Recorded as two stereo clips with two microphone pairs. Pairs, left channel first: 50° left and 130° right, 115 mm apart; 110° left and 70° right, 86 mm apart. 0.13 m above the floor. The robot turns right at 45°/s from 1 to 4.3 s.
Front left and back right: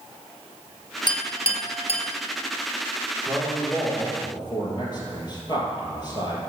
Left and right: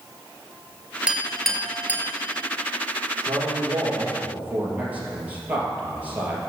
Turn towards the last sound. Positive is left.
turn(degrees=0)